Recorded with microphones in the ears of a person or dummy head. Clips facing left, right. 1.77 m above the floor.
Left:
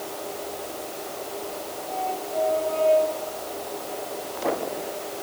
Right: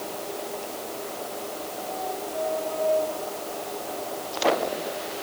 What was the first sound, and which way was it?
Only background noise.